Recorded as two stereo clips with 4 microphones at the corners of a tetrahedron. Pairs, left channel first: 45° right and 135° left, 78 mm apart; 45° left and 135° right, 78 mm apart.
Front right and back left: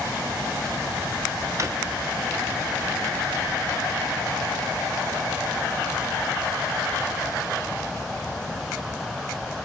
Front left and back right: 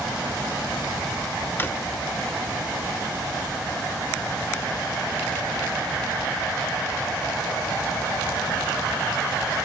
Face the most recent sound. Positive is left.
turn(degrees=100)